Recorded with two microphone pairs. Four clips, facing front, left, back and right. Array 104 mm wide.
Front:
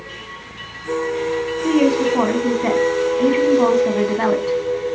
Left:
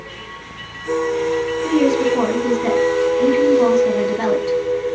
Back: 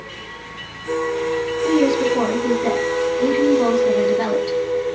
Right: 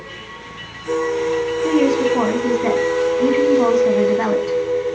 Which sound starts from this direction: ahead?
A woman speaking, at 1.6 s.